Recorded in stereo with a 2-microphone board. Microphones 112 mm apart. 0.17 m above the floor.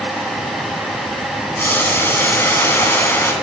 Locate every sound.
1.6 s boiling: 20° left (ahead or behind), 1.0 m